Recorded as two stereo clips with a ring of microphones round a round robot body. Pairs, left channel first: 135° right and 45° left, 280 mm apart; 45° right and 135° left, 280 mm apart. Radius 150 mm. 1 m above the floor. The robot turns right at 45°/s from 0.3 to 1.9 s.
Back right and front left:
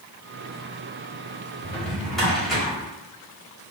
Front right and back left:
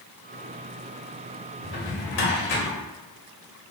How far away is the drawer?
About 1.2 m.